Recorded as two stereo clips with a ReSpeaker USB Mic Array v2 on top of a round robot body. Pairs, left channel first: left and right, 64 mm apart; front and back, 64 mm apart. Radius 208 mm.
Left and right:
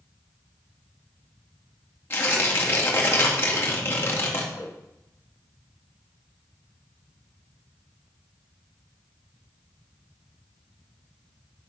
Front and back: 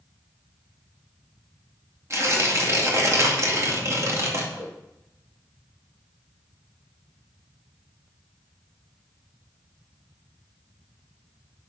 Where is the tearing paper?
140° left, 2.5 m.